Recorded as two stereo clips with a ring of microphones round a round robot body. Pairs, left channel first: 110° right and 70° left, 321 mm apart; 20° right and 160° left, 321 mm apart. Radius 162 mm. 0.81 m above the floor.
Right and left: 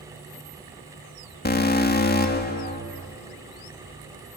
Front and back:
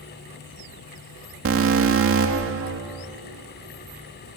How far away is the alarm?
About 2 m.